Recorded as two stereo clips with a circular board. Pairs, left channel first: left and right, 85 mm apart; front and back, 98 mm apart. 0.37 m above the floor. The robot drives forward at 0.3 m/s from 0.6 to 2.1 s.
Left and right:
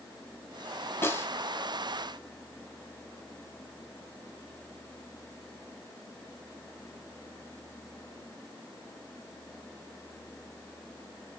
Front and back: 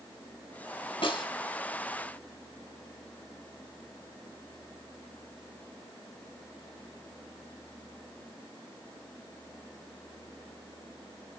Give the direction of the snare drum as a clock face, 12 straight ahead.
11 o'clock.